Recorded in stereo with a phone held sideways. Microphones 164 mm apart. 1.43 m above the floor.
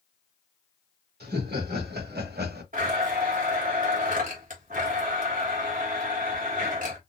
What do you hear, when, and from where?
1.2 s laughter: 80° right, 2 m
2.7 s a blender: 55° right (ahead or behind), 1.5 m